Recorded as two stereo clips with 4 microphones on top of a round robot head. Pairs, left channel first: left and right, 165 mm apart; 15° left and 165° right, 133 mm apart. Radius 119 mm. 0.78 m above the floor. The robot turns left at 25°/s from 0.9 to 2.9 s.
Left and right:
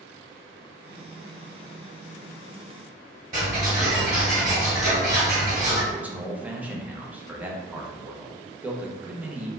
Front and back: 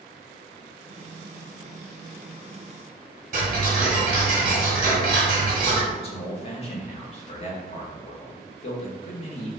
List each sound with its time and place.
3.3 s ticking: 145° right, 1.2 m
5.9 s a man speaking: 10° right, 0.7 m